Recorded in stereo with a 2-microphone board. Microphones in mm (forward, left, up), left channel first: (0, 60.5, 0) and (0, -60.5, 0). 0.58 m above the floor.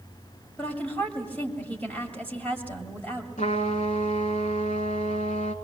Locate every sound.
0.6 s a woman speaking: 15° left (ahead or behind), 2.5 m
3.4 s a trumpet: 75° left (ahead or behind), 2 m